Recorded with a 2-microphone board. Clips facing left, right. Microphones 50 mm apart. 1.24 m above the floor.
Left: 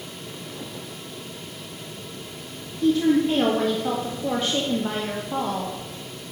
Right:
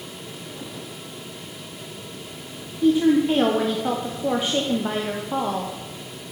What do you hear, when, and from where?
2.8 s a woman speaking: 15° right (ahead or behind), 0.5 m